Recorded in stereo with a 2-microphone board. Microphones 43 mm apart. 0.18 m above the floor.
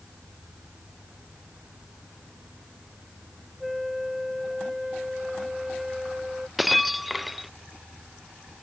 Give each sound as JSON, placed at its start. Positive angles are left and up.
{"t": 3.6, "sound": "a flute", "side_deg": -10}
{"t": 6.6, "sound": "breaking glass", "side_deg": 0}